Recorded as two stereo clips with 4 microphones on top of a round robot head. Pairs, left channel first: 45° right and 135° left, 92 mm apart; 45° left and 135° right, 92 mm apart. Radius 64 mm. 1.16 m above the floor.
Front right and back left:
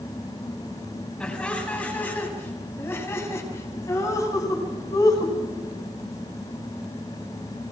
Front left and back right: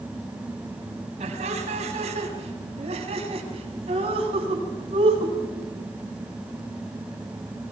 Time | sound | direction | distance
1.2 | laughter | 125° right | 8 m